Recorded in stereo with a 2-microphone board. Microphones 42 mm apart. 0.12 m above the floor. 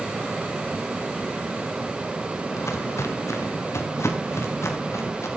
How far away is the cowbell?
No cowbell in this recording.